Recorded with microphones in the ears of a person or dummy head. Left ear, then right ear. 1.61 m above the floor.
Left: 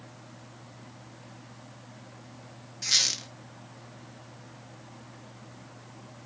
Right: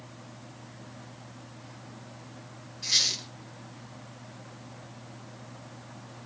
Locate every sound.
2.8 s a squeak: 50° left (ahead or behind), 1.0 m